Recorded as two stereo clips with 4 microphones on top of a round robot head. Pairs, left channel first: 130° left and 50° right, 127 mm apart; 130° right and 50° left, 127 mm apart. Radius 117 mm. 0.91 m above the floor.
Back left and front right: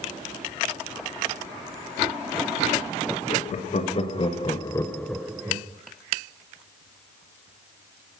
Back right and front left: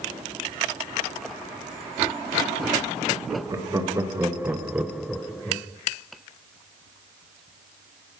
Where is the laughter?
110° left, 1.7 m; by 5.7 s 70° right, 0.8 m.